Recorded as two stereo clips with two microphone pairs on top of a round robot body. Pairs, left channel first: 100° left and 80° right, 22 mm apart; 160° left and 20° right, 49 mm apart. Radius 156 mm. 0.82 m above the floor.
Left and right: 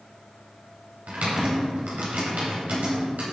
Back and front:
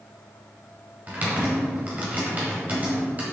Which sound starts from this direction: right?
Typing on a keyboard, at 1.1 s.